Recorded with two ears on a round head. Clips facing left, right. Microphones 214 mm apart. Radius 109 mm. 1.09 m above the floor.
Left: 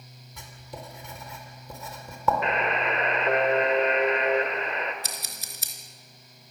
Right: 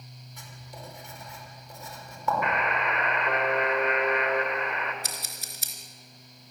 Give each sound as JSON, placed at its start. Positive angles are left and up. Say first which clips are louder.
{"t": 0.4, "sound": "writing", "louder": "left 4 dB", "side_deg": 75, "distance_m": 4.5}
{"t": 2.4, "sound": "a buzzer", "louder": "left 2 dB", "side_deg": 25, "distance_m": 1.6}
{"t": 5.0, "sound": "scissors", "louder": "even", "side_deg": 75, "distance_m": 3.5}